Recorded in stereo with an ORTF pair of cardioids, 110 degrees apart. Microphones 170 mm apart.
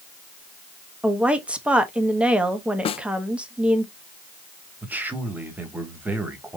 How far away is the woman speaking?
About 1.1 m.